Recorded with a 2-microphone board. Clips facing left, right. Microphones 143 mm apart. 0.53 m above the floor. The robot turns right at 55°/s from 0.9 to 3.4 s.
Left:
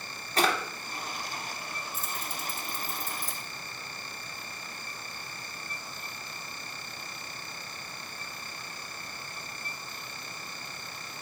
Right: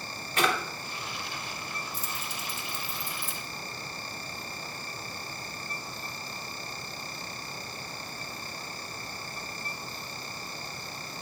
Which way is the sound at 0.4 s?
35° left (ahead or behind).